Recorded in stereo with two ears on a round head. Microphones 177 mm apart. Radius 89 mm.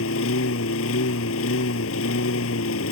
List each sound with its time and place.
0.0 s a lawn mower: 80° left